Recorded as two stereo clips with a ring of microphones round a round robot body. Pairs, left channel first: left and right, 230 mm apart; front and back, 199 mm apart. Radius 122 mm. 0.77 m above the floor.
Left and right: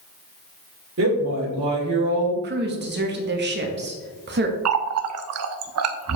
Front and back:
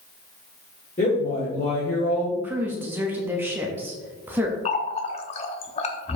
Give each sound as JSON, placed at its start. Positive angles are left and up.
{"t": 1.0, "sound": "a woman speaking", "azimuth_deg": -60, "distance_m": 2.5}
{"t": 2.4, "sound": "a woman speaking", "azimuth_deg": -105, "distance_m": 1.4}
{"t": 4.7, "sound": "a running tap", "azimuth_deg": -65, "distance_m": 0.7}